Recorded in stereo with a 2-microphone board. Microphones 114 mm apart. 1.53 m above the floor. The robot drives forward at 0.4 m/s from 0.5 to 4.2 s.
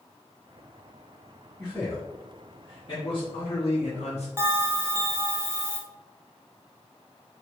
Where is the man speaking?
25° left (ahead or behind), 1.3 m; by 4.3 s 75° left (ahead or behind), 0.6 m.